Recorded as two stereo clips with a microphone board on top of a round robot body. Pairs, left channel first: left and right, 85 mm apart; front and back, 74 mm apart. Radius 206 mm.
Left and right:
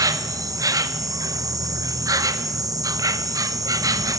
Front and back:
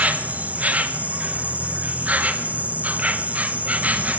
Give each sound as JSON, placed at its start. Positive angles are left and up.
{"t": 0.0, "sound": "an insect", "azimuth_deg": -115, "distance_m": 0.8}